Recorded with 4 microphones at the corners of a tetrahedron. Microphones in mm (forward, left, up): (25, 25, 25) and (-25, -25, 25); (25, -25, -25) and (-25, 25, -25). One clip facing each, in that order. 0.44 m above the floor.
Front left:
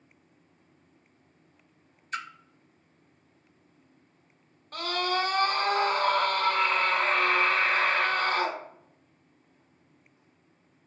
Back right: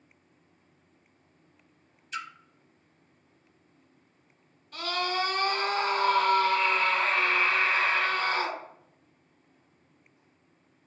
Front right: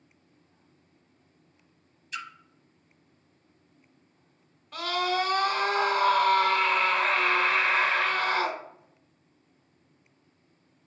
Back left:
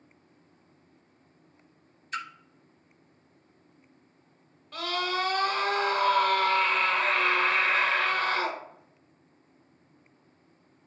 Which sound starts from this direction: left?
A splash, at 2.1 s.